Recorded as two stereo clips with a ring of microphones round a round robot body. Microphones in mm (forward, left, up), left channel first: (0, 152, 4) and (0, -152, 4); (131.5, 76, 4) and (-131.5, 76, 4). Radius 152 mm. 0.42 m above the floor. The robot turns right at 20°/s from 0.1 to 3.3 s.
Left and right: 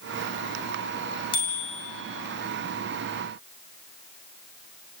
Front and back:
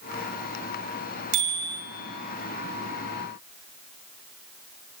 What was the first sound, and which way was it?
A bicycle bell, 165° left.